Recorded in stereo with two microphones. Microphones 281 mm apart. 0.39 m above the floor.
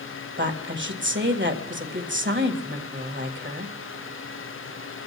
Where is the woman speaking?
40° right (ahead or behind), 1.7 m.